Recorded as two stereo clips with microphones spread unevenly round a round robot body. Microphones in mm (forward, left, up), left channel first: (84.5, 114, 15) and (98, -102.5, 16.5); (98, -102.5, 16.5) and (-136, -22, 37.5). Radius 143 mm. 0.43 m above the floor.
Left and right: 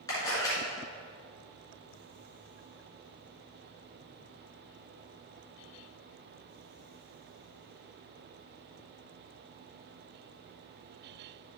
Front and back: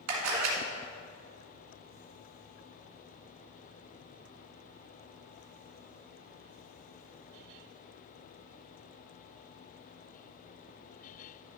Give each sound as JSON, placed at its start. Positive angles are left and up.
{"t": 0.1, "sound": "a camera shutter", "azimuth_deg": 170, "distance_m": 2.0}